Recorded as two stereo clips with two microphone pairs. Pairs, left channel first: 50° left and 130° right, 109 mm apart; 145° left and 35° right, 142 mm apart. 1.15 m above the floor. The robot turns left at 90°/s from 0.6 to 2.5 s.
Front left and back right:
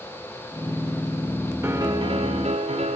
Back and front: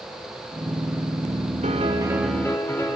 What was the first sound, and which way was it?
A piano, 65° right.